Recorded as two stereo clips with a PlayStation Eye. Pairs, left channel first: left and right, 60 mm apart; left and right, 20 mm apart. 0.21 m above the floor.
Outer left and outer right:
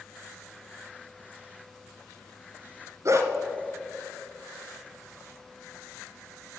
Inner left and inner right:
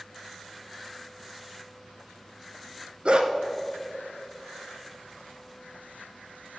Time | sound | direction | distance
3.0 | a dog barking | 55° right (ahead or behind) | 0.9 m